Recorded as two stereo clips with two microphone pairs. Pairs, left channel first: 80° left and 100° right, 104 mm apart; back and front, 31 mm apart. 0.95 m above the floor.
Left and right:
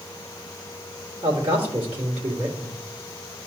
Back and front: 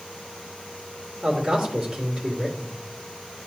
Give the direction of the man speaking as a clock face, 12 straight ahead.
3 o'clock.